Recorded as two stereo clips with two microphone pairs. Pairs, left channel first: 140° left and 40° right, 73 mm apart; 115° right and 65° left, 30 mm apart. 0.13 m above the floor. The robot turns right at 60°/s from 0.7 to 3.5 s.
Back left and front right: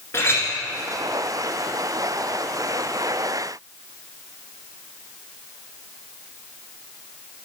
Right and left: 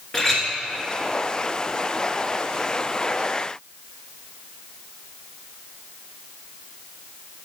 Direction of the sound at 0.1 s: 175° left.